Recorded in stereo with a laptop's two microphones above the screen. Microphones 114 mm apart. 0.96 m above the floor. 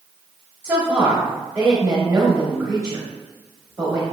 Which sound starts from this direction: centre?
A woman speaking, at 0.6 s.